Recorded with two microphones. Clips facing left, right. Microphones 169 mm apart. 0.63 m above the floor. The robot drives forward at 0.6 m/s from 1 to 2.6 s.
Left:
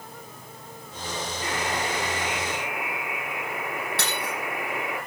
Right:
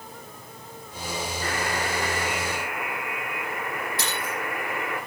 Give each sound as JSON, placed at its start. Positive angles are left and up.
{"t": 1.4, "sound": "a buzzer", "side_deg": 20, "distance_m": 8.5}
{"t": 4.0, "sound": "breaking glass", "side_deg": 85, "distance_m": 9.0}